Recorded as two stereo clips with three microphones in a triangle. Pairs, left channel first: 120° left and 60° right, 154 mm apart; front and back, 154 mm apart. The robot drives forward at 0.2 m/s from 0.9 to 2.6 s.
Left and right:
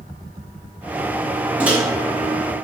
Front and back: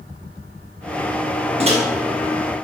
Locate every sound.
1.6 s a microwave: 140° right, 0.7 m